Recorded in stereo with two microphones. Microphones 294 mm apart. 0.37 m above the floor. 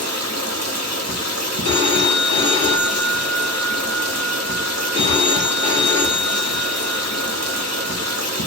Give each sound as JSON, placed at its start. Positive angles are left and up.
{"t": 0.0, "sound": "running water", "side_deg": -60, "distance_m": 1.0}
{"t": 1.6, "sound": "a phone ringing", "side_deg": -25, "distance_m": 1.3}